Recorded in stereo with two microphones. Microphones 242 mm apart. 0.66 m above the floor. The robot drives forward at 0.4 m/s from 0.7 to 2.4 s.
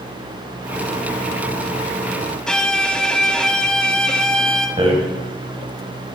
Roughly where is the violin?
Centre.